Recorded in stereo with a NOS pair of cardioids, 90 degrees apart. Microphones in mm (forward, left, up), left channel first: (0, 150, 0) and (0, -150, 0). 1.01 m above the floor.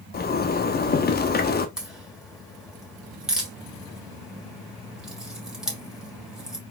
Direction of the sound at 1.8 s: Straight ahead.